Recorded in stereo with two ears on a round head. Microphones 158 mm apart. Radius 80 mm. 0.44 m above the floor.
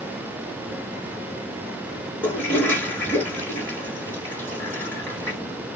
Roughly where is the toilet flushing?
Centre.